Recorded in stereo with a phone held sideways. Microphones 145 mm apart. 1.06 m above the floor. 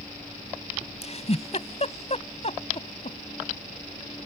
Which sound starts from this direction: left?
A giggle, at 1.0 s.